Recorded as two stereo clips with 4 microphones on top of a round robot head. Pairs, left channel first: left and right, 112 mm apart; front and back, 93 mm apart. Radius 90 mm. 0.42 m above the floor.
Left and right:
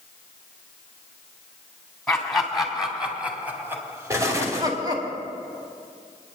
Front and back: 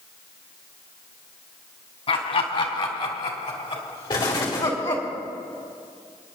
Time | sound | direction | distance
2.1 | laughter | 5° left | 3 m
4.1 | an explosion | 30° right | 2 m